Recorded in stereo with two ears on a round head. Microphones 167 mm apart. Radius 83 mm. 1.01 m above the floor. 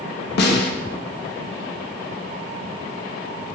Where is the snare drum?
60° left (ahead or behind), 0.5 m.